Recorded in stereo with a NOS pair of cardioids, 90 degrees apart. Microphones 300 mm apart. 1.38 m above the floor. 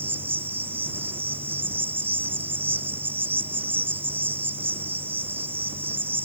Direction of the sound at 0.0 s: 5° right.